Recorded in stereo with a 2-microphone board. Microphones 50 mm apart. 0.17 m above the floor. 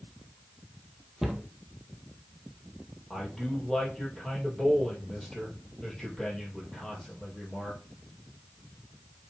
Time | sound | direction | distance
1.2 | a cupboard door | 5° right (ahead or behind) | 1.6 m
3.1 | a man speaking | 5° left (ahead or behind) | 5 m